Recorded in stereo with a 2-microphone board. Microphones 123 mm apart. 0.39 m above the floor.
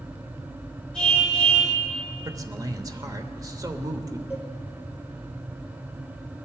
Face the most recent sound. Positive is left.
turn(degrees=-15)  # may be behind; listen again after turning